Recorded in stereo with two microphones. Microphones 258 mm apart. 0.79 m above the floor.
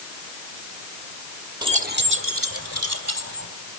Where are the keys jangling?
15° right (ahead or behind), 0.9 m; by 3.5 s 70° right (ahead or behind), 3.5 m.